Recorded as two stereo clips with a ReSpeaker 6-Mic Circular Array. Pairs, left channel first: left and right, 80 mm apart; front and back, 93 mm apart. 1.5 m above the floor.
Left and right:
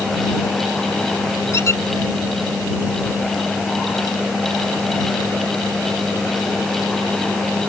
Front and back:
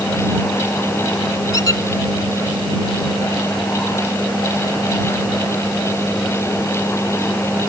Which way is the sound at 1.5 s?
40° left.